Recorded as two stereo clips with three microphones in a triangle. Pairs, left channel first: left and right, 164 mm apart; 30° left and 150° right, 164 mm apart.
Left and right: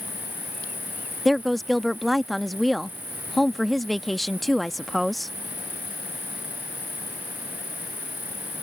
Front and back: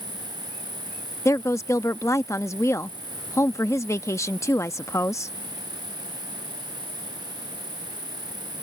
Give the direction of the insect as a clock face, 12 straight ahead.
5 o'clock.